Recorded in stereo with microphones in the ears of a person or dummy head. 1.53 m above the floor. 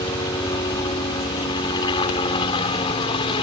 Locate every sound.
0.0 s a helicopter: 20° left (ahead or behind); by 3.4 s 25° left (ahead or behind)